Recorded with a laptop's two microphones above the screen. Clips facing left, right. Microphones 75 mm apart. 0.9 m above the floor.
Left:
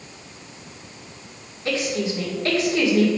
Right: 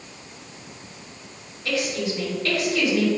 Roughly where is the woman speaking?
Left.